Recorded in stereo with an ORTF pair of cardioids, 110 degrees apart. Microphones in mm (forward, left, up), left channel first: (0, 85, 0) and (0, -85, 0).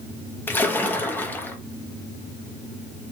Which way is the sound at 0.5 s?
10° left.